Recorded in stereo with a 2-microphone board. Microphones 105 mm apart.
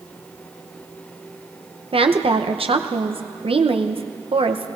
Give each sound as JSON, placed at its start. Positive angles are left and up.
{"t": 1.9, "sound": "a woman speaking", "side_deg": -60, "distance_m": 0.8}